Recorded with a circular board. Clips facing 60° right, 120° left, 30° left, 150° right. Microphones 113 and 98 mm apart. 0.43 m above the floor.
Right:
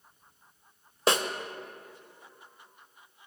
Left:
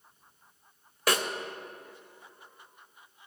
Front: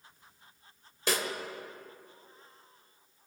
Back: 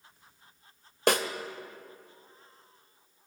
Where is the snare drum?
120° right, 0.7 m.